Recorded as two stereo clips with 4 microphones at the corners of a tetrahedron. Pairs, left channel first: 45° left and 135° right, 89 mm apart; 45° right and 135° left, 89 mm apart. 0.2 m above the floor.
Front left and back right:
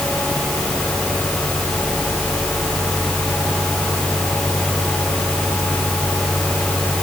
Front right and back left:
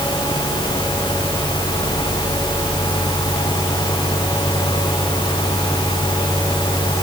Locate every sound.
Only background noise.